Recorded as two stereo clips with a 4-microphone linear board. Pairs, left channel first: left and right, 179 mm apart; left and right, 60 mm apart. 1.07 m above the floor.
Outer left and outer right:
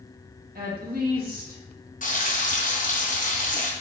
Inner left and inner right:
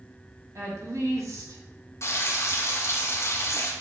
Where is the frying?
50° left (ahead or behind), 0.8 m.